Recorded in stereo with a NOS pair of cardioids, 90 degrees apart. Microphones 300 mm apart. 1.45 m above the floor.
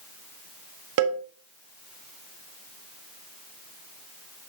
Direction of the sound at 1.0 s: 60° right.